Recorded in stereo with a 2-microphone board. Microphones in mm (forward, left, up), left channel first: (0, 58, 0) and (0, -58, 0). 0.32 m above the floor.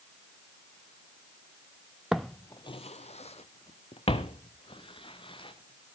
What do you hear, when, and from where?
2.1 s footsteps: 5° right (ahead or behind), 0.8 m; by 6.0 s 45° left (ahead or behind), 4 m